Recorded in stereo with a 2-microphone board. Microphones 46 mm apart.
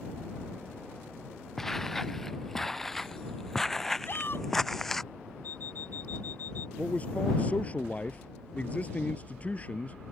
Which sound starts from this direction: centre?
Footsteps, at 1.6 s.